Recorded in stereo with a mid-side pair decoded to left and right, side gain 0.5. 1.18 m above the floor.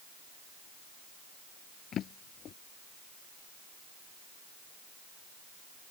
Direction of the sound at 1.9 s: 60° left.